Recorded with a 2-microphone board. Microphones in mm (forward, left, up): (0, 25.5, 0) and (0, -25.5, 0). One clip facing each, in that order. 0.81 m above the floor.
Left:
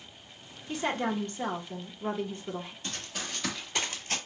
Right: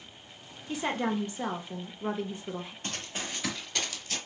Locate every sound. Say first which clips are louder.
0.7 s a woman speaking: even; 5° right (ahead or behind), 0.6 m
2.8 s running footsteps: right 1 dB; 45° right (ahead or behind), 1.1 m; by 4.2 s 40° left (ahead or behind), 1.0 m